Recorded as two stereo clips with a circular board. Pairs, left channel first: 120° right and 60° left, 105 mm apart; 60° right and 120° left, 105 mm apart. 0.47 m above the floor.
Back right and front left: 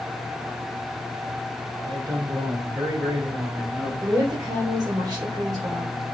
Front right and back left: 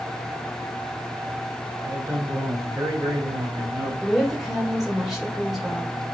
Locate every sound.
1.8 s a man speaking: 75° left, 1.9 m; by 3.9 s 130° left, 1.5 m
4.0 s a woman speaking: 35° left, 1.3 m